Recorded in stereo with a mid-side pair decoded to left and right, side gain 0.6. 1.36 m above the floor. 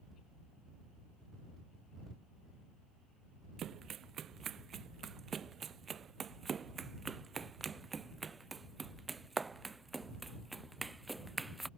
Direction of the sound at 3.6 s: 45° right.